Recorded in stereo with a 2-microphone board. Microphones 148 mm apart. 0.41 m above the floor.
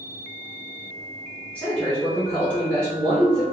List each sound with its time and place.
1.6 s a man speaking: 10° left (ahead or behind), 0.9 m